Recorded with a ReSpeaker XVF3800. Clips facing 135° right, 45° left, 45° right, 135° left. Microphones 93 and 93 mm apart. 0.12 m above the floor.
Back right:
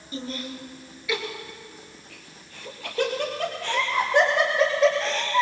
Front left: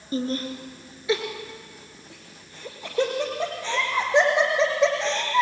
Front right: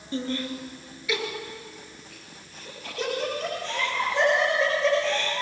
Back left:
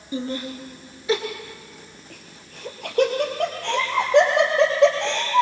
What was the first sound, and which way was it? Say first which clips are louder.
Laughter: front left 7 dB, back left 1 dB; 65° left.